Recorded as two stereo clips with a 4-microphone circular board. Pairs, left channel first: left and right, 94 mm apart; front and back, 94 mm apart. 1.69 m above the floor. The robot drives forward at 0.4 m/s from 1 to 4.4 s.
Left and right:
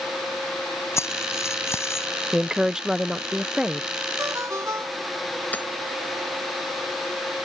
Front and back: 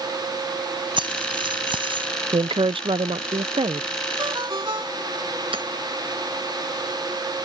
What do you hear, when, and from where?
1.0 s keys jangling: 150° left
2.3 s a woman speaking: 170° right; by 3.9 s 175° right
4.2 s a ringtone: 145° right
5.5 s hammering: 160° left